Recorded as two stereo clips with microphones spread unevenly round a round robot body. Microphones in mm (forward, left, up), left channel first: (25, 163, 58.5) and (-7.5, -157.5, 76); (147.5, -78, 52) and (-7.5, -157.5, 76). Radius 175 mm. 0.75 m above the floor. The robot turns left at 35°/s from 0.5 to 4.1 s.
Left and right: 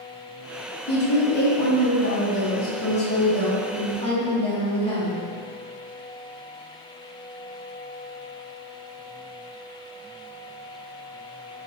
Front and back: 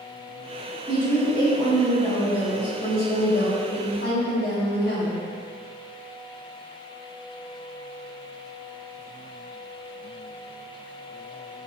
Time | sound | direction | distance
0.9 | a woman speaking | 125° left | 1.3 m